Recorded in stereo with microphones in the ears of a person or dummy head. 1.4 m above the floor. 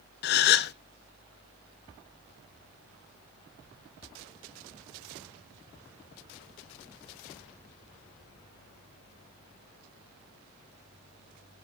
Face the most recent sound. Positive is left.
turn(degrees=55)  # may be behind; listen again after turning